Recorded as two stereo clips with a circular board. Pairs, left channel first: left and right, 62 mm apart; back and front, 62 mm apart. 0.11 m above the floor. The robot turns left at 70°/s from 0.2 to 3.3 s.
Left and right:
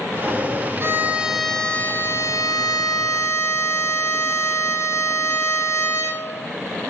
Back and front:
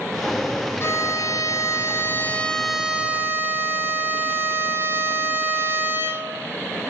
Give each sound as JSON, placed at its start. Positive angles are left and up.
{"t": 0.8, "sound": "a violin", "azimuth_deg": -135, "distance_m": 1.7}